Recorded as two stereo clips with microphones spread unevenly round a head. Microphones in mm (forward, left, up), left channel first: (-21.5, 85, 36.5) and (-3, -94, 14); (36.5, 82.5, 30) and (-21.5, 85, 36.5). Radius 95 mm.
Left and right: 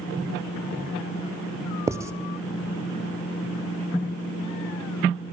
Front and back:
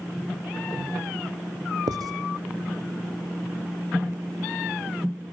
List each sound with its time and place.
1.9 s writing: 160° right, 0.9 m